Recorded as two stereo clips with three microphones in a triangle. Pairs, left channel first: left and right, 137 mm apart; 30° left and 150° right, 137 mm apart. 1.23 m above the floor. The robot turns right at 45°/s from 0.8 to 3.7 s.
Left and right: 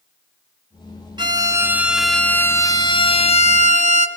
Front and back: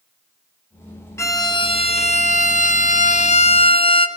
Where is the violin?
40° right, 2.5 m; by 4.1 s 75° left, 2.5 m.